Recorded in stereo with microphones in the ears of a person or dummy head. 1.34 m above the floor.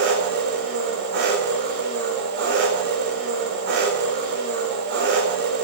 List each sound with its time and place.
0.0 s an engine running: 55° right (ahead or behind), 4.5 m